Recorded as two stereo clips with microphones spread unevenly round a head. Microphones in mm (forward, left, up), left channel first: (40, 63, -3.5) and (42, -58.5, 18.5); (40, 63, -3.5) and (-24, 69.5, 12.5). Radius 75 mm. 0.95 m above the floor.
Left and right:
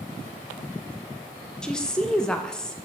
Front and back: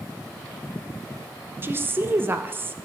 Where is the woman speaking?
135° left, 0.5 m.